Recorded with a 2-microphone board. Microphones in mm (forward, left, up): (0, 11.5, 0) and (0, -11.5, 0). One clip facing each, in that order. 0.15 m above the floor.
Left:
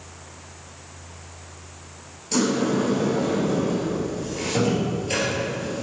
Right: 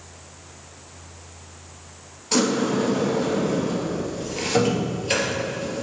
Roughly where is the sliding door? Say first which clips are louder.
Right 1 dB; right.